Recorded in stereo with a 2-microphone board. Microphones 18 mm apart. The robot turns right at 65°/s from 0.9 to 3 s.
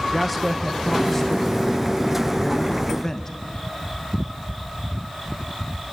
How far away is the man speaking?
About 0.9 m.